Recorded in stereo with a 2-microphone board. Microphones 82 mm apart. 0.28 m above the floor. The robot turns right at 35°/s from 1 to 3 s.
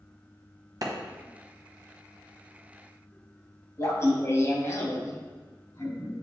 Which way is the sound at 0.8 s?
50° right (ahead or behind).